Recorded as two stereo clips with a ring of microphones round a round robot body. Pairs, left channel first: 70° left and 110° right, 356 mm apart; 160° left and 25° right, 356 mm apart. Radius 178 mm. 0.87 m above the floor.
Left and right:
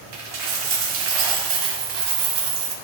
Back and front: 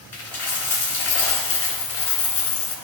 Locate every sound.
0.1 s a dropped coin: 155° right, 2 m